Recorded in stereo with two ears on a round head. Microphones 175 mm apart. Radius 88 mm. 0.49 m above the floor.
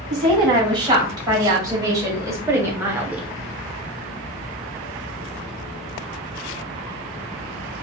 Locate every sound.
0.1 s a woman speaking: 20° right (ahead or behind), 2.5 m; by 3.3 s 5° right (ahead or behind), 0.9 m